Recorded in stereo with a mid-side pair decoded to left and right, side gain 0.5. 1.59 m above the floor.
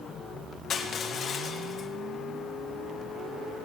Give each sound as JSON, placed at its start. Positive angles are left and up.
{"t": 0.7, "sound": "crushing", "azimuth_deg": 55, "distance_m": 1.7}